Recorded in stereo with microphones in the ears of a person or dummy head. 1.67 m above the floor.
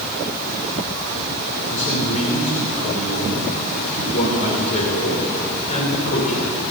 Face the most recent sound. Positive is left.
turn(degrees=45)  # may be behind; listen again after turning